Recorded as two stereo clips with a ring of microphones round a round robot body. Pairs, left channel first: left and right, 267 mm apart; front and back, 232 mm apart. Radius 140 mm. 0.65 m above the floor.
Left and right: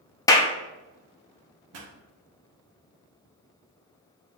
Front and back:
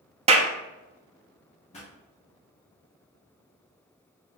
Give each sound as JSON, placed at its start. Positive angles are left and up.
{"t": 0.3, "sound": "a clap", "azimuth_deg": 155, "distance_m": 0.7}
{"t": 1.7, "sound": "a pop", "azimuth_deg": -65, "distance_m": 0.9}